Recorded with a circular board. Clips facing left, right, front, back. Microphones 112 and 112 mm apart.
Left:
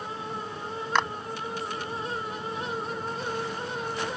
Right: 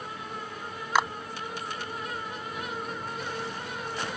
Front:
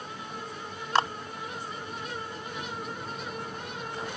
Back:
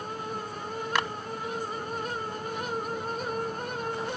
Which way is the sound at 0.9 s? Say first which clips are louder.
Right 1 dB, front 5 dB; 10° right.